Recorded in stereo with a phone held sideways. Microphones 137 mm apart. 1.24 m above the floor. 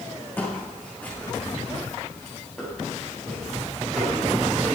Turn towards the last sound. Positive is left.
turn(degrees=0)  # may be behind; listen again after turning